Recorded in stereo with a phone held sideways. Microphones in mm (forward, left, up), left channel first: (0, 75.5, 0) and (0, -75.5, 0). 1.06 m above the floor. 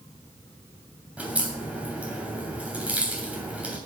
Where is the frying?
No frying in this recording.